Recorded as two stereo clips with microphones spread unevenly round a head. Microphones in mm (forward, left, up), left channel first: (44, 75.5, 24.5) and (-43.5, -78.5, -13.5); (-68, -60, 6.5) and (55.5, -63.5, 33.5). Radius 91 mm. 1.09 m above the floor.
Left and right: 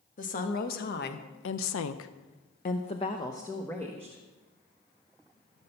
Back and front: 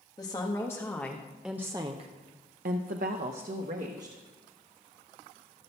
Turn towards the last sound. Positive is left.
turn(degrees=-25)